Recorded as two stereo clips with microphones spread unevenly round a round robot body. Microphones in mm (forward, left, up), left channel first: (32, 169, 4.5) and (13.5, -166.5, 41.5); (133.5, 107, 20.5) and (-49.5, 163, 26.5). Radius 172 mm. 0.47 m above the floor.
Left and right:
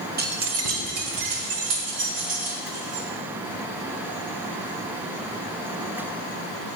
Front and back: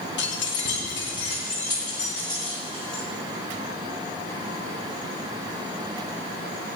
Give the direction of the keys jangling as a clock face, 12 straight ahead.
1 o'clock.